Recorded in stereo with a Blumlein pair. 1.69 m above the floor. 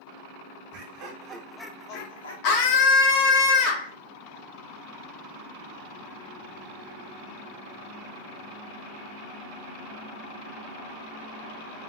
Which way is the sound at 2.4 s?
40° left.